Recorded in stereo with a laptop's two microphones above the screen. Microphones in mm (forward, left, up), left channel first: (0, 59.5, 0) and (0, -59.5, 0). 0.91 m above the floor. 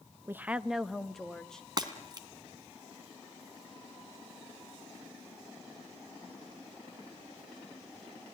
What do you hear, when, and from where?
0.3 s a woman speaking: 20° right (ahead or behind), 0.6 m; by 1.7 s 5° left (ahead or behind), 1.9 m
1.8 s breaking glass: 35° right (ahead or behind), 2 m